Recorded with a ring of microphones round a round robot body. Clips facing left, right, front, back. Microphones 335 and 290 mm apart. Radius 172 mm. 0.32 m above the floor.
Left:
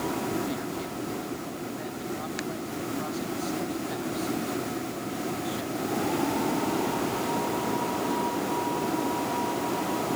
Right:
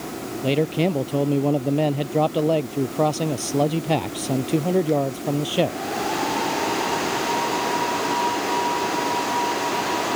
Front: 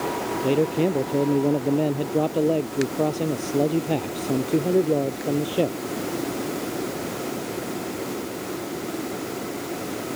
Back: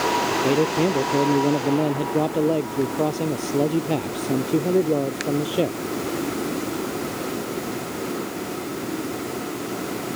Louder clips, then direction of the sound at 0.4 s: Right 11 dB, even; 95° right.